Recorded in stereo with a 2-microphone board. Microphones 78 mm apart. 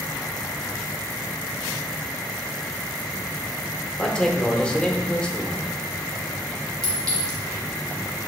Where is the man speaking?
10° left (ahead or behind), 0.6 m.